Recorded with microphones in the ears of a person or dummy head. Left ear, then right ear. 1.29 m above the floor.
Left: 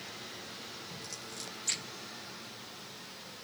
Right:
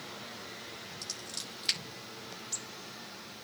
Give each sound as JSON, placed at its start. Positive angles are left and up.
{"t": 1.0, "sound": "scissors", "side_deg": -45, "distance_m": 5.5}